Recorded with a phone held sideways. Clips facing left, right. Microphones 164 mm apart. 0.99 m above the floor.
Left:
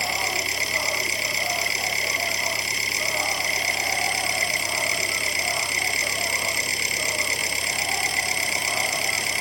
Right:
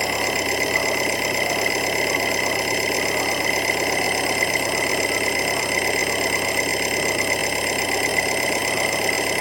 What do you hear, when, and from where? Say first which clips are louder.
0.0 s an engine running: right 6 dB; 60° right (ahead or behind)